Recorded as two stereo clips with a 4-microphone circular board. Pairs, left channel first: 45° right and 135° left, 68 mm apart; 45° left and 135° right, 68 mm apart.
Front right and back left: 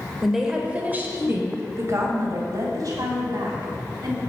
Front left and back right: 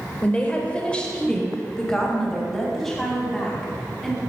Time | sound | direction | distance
0.2 | a woman speaking | 45° left | 1.1 m